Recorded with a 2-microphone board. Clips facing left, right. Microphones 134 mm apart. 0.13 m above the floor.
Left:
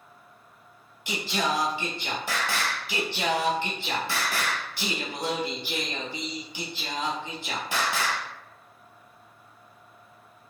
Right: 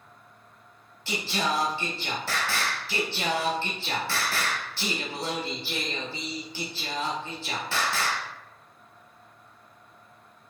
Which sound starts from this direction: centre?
Singing, at 1.1 s.